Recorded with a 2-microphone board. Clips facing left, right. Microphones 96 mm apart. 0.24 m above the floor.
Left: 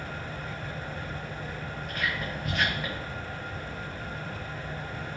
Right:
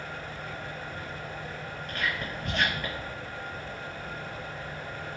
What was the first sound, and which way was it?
Whispering, 5° left (ahead or behind).